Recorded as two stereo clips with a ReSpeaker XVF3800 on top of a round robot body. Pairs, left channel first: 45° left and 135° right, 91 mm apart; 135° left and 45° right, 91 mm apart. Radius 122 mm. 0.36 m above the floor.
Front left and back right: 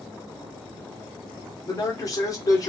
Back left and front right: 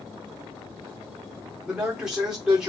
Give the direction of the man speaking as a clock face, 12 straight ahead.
11 o'clock.